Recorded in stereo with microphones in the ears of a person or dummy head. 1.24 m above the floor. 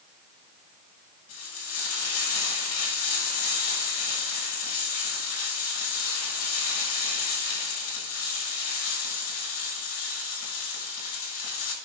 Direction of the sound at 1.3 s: 85° left.